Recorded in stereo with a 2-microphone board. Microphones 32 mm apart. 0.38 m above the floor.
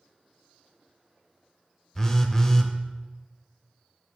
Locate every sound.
1.9 s a phone buzzing: 20° left (ahead or behind), 0.7 m